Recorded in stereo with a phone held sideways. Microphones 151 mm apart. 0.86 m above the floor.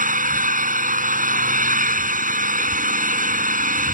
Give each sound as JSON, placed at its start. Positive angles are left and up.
{"t": 0.0, "sound": "an engine running", "side_deg": -70}